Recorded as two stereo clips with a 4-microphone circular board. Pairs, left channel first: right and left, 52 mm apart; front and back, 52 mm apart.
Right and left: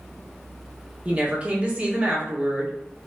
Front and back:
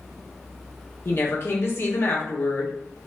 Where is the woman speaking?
35° left, 0.8 m.